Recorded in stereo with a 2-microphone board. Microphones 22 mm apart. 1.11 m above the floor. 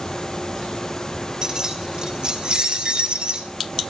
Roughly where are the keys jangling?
Right.